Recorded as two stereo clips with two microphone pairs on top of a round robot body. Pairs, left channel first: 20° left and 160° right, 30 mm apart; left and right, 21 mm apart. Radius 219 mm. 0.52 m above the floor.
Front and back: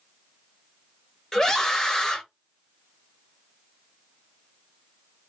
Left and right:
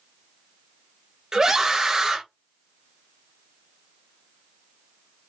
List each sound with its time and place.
1.3 s a scream: 25° right, 1.4 m